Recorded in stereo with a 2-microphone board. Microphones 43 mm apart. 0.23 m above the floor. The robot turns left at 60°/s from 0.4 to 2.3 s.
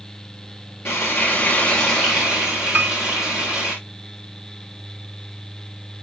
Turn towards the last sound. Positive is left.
turn(degrees=-45)  # may be behind; listen again after turning